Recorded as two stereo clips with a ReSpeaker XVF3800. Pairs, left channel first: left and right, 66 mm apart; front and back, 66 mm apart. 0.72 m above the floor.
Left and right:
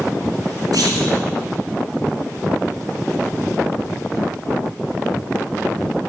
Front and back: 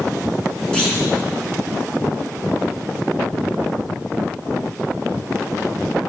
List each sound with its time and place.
0.7 s a clunk: 75° right, 3.5 m